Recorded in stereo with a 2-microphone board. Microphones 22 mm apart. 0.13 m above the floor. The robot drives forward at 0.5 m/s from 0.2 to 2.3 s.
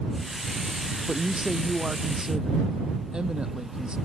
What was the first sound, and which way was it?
A man speaking, 25° right (ahead or behind).